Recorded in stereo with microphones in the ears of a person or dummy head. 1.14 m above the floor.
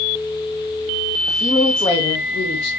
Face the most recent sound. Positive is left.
turn(degrees=35)  # may be behind; listen again after turning